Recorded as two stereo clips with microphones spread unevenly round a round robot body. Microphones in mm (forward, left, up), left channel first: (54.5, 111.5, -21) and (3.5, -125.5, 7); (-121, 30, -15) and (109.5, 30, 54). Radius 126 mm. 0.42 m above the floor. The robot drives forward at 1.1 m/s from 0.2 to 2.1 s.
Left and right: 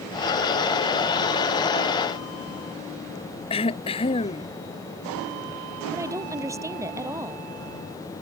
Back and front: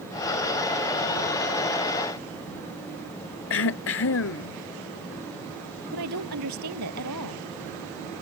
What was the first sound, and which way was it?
Throat clearing, 150° left.